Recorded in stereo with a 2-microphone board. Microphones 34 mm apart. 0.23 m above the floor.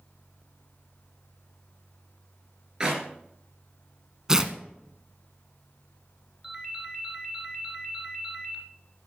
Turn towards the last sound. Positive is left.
turn(degrees=-15)  # may be behind; listen again after turning